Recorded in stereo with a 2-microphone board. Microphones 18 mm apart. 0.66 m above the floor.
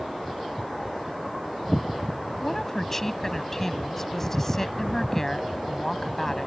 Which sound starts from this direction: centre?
A woman speaking, at 2.4 s.